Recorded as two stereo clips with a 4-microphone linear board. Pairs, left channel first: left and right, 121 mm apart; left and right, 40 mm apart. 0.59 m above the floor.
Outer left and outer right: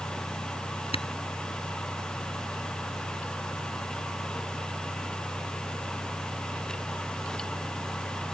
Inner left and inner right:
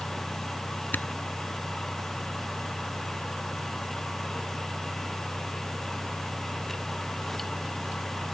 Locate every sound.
0.9 s a camera shutter: 55° left (ahead or behind)